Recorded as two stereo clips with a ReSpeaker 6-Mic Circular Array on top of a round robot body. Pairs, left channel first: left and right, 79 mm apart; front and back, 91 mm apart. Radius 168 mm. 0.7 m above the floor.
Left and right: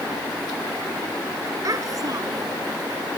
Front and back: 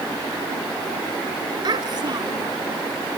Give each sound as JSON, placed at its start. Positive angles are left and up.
{"t": 1.6, "sound": "a child speaking", "azimuth_deg": -135}